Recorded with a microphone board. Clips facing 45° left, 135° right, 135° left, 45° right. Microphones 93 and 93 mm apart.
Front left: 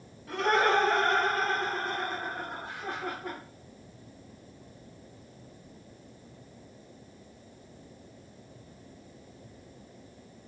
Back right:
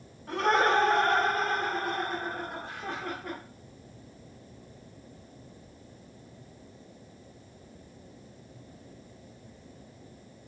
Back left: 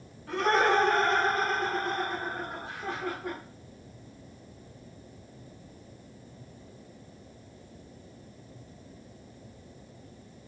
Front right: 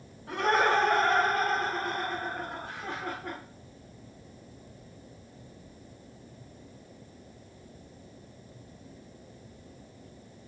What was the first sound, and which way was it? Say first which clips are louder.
Laughter: back right 1 dB, back left 1 dB; 115° right.